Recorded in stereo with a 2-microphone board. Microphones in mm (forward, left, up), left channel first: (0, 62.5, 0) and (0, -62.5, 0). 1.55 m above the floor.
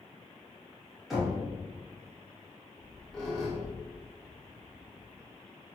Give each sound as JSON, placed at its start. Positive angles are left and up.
{"t": 1.1, "sound": "knocking", "side_deg": 0, "distance_m": 1.3}
{"t": 2.8, "sound": "a squeak", "side_deg": 5, "distance_m": 1.5}